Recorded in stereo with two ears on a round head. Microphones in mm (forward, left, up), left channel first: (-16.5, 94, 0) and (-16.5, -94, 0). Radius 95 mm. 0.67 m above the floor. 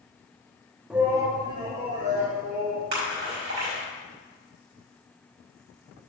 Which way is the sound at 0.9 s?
5° right (ahead or behind).